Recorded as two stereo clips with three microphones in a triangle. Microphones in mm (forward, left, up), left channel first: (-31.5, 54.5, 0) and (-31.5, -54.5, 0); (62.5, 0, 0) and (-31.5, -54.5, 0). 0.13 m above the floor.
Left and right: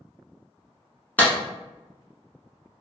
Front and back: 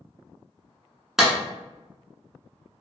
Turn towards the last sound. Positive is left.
turn(degrees=130)